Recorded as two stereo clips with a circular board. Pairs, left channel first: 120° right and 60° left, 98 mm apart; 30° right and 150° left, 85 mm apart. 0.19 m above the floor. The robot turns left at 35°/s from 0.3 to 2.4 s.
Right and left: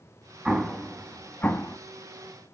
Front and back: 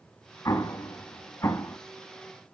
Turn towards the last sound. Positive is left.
turn(degrees=-90)